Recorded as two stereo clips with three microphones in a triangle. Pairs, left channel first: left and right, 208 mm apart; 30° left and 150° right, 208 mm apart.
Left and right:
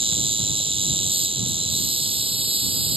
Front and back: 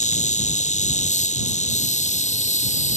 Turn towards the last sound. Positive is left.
turn(degrees=-25)